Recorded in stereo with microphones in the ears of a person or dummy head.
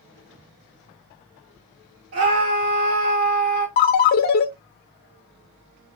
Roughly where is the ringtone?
Left.